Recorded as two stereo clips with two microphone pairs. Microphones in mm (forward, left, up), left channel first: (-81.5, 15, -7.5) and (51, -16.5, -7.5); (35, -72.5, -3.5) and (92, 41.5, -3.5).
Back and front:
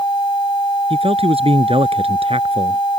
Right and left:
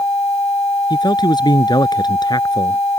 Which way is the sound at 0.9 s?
60° right.